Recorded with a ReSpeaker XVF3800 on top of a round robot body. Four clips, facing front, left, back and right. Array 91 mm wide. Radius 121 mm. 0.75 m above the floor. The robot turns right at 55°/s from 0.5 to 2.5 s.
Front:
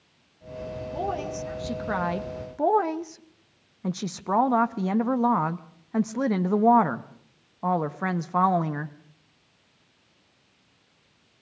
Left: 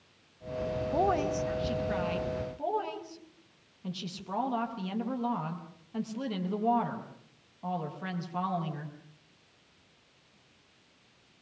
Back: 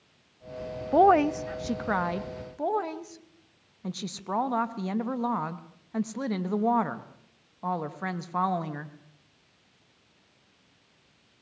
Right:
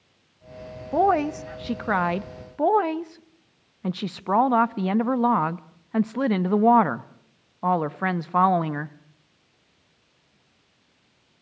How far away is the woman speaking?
About 0.9 m.